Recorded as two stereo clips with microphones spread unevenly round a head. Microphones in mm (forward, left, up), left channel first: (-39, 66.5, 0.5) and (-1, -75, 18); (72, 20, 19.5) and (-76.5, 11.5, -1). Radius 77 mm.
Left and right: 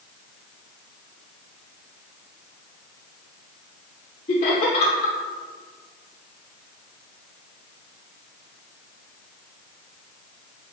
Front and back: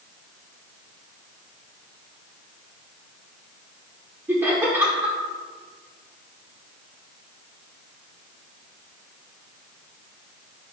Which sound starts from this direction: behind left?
Laughter, at 4.3 s.